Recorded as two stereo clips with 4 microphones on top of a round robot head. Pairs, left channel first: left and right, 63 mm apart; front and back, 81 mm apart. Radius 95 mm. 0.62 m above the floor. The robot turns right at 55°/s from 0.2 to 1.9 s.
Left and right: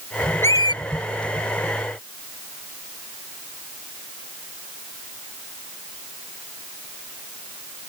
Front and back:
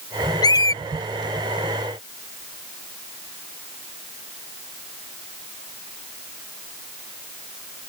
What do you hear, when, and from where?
0.4 s a squeak: 20° left; by 0.8 s 40° left